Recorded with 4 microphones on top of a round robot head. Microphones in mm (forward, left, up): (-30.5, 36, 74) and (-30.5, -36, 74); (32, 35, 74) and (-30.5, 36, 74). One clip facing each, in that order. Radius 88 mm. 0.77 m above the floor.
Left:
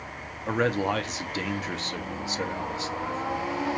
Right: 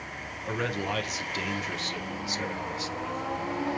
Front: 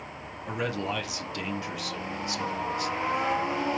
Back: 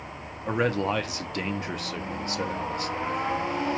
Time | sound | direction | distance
0.5 | a man speaking | 140° left | 0.9 m